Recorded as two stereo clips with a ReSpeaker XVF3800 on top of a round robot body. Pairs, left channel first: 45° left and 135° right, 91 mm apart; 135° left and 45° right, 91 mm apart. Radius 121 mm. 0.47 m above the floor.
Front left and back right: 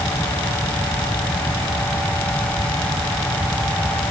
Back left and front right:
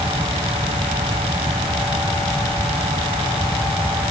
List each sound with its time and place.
Only background noise.